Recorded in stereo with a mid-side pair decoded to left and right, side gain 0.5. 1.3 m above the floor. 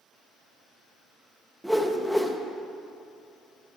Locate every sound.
1.6 s a whoosh: 5° right, 1.1 m